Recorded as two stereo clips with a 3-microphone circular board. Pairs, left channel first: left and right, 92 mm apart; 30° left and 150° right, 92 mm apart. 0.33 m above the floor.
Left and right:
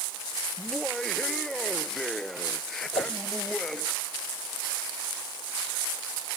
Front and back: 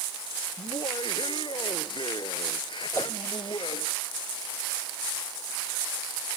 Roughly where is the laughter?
Ahead.